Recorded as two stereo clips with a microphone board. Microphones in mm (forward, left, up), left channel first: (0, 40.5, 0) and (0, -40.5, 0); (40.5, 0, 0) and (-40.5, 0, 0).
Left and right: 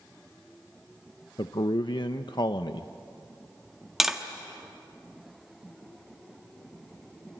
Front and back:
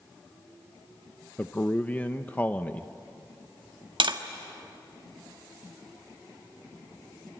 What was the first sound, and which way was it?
A man speaking, 70° left.